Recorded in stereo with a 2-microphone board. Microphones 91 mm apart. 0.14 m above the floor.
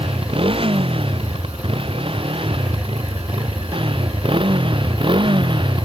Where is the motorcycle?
80° right; by 5.8 s 60° right (ahead or behind).